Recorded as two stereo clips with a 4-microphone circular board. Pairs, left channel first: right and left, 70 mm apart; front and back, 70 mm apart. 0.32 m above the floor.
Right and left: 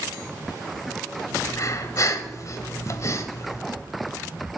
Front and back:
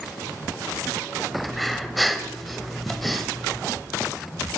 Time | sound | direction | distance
1.4 | breathing | 90° right | 0.8 m